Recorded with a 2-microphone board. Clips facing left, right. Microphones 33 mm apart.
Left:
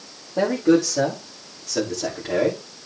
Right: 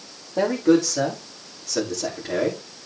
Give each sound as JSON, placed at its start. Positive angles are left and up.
{"t": 0.4, "sound": "a man speaking", "side_deg": 0, "distance_m": 7.0}